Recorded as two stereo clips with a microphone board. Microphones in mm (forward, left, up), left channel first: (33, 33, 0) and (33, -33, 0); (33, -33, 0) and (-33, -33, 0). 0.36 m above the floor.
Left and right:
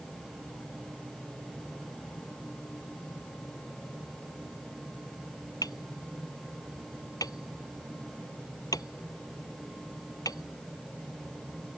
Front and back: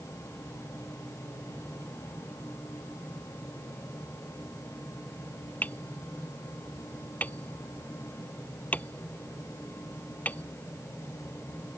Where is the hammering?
65° left.